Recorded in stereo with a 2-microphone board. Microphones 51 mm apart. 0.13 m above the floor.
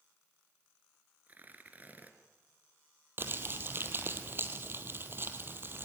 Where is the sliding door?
No sliding door in this recording.